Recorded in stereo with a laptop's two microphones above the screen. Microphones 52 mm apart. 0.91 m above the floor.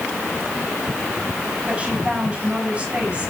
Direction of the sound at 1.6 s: 20° right (ahead or behind).